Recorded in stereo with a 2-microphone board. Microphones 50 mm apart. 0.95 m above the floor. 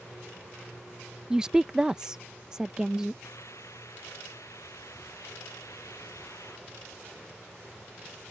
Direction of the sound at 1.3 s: 15° right (ahead or behind).